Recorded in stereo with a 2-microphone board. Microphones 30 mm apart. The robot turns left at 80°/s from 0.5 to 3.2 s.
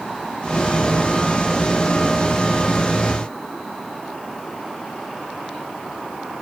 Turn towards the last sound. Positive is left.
No sound to turn to.